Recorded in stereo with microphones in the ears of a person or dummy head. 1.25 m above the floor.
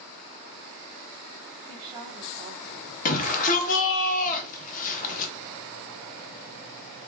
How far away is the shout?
About 1.1 m.